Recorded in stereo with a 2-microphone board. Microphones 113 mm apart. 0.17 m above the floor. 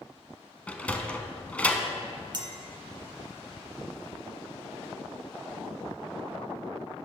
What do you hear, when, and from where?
0.7 s a sliding door: 10° left (ahead or behind), 0.8 m
2.3 s a clink: 45° right (ahead or behind), 1.0 m